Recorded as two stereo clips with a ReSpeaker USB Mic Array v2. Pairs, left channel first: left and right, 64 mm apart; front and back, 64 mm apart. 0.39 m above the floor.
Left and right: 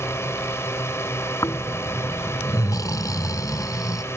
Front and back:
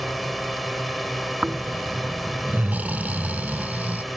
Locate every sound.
0.0 s a drone: 90° left
1.4 s snoring: 115° left